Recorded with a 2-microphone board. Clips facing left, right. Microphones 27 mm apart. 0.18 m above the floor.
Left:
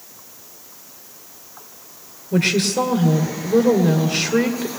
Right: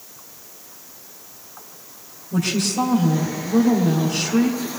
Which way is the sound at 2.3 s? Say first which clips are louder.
Left 4 dB; 45° left (ahead or behind).